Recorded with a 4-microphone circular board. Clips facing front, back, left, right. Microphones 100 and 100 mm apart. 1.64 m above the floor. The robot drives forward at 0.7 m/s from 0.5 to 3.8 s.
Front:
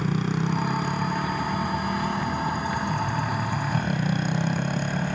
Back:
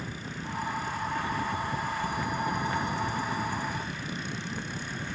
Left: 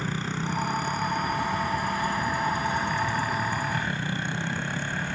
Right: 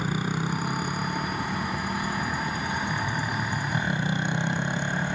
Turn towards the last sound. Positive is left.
turn(degrees=-20)